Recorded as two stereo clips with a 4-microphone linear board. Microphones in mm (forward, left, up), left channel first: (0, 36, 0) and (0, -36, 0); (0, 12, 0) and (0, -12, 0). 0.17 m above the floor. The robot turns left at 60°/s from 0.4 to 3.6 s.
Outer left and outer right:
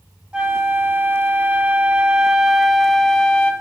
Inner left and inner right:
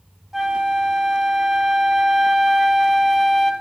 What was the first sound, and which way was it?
A flute, 15° right (ahead or behind).